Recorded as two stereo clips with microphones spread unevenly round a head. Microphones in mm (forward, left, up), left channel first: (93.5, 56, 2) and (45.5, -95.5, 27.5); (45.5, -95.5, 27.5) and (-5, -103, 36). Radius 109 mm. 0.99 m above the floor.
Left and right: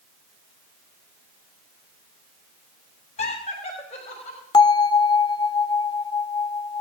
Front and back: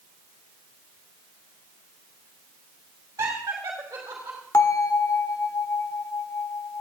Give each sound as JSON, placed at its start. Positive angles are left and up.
{"t": 3.2, "sound": "laughter", "azimuth_deg": 135, "distance_m": 3.0}
{"t": 4.5, "sound": "a bell", "azimuth_deg": 15, "distance_m": 0.7}